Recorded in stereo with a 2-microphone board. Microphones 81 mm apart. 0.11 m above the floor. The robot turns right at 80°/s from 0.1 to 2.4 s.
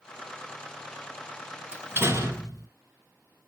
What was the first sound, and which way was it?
A door slam, 145° right.